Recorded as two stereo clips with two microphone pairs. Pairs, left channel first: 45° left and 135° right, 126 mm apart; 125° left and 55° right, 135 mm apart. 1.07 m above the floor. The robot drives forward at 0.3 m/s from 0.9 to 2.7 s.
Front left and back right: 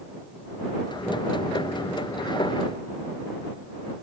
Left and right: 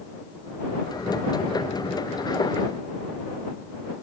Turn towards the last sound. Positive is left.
No sound to turn to.